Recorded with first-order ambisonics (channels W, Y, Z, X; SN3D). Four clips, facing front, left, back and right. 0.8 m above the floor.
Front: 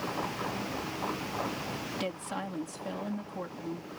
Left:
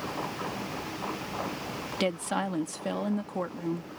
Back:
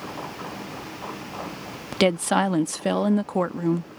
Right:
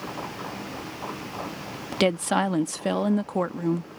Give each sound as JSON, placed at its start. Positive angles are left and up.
{"t": 1.9, "sound": "a woman speaking", "azimuth_deg": -155}